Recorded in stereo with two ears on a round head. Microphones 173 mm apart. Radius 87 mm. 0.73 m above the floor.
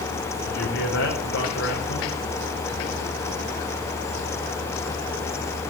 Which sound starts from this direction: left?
A man speaking, at 0.5 s.